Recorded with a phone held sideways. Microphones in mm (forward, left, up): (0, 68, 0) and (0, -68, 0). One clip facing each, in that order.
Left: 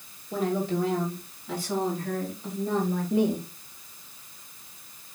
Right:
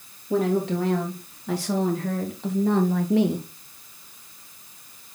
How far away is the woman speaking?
About 3 m.